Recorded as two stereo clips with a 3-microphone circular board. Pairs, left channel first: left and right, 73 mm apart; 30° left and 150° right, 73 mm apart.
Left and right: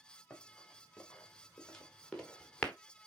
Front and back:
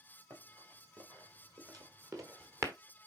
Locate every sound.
0.3 s running footsteps: 170° left, 4.5 m; by 2.7 s 165° left, 1.5 m